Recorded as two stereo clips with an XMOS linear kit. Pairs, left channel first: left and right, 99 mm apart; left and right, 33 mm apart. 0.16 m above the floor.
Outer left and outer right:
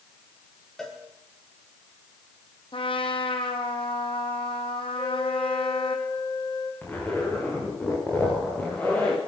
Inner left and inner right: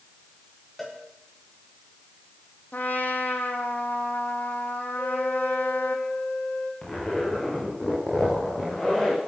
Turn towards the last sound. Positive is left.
turn(degrees=20)  # may be behind; listen again after turning